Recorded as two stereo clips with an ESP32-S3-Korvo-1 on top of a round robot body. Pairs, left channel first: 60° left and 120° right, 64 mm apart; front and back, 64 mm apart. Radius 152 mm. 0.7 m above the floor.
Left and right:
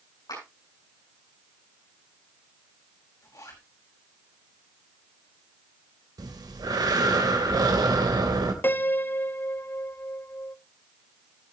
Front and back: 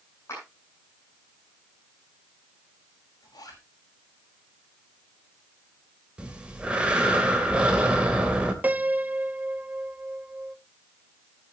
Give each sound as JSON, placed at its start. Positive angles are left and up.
{"t": 0.3, "sound": "a clap", "azimuth_deg": 45, "distance_m": 8.5}
{"t": 3.2, "sound": "a zipper", "azimuth_deg": 20, "distance_m": 6.5}
{"t": 6.2, "sound": "breathing", "azimuth_deg": -105, "distance_m": 3.0}
{"t": 8.6, "sound": "a piano", "azimuth_deg": 115, "distance_m": 0.8}